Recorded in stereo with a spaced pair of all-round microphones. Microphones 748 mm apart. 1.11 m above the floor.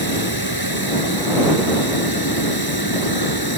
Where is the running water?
30° left (ahead or behind).